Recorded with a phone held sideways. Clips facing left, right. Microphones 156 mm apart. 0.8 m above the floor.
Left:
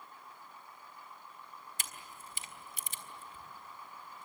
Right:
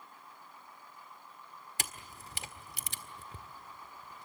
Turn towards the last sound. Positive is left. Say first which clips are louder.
# right 7 dB
turn(degrees=-75)  # may be behind; listen again after turning